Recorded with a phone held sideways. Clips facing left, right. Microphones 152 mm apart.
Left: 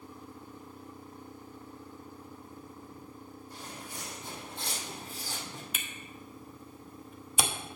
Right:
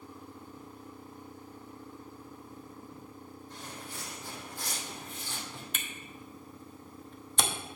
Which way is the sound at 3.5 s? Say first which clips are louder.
Even; 5° left (ahead or behind).